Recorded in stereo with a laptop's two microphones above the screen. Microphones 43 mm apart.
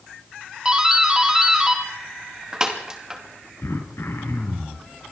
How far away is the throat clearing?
About 4 m.